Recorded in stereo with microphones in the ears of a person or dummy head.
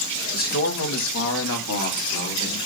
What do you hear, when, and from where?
0.3 s a man speaking: 45° left (ahead or behind), 1.3 m; by 2.6 s 65° left (ahead or behind), 2.5 m